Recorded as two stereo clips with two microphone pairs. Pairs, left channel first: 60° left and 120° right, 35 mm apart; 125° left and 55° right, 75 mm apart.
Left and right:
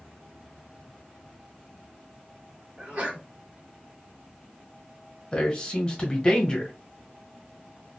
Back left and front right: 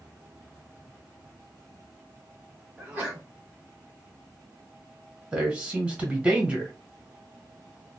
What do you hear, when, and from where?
2.8 s a sneeze: 115° right, 2 m
5.3 s a man speaking: 10° left, 1.2 m